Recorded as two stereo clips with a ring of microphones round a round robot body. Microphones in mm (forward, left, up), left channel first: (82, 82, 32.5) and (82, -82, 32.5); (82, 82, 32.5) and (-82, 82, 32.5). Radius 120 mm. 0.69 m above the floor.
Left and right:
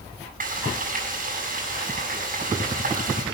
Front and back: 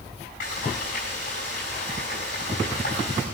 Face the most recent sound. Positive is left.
turn(degrees=-55)